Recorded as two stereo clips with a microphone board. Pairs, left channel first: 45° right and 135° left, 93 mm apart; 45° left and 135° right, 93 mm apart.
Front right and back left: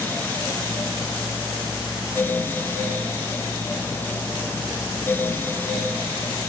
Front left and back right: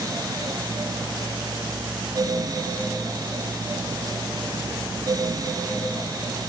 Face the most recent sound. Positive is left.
No sound to turn to.